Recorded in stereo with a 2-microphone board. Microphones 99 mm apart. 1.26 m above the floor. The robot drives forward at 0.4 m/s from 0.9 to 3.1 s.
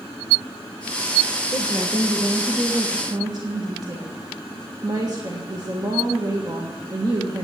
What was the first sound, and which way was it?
A woman speaking, 55° right (ahead or behind).